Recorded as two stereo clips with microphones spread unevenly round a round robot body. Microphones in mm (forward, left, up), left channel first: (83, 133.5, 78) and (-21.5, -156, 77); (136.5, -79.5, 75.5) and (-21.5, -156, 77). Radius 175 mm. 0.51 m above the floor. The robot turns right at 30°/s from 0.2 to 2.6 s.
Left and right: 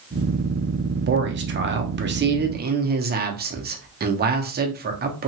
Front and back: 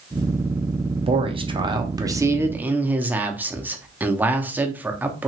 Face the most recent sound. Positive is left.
turn(degrees=-80)